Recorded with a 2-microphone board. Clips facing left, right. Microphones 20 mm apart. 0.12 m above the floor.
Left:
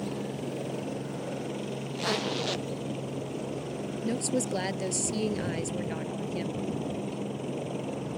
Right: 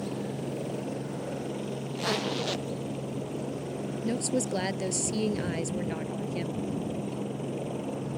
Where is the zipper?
15° left (ahead or behind).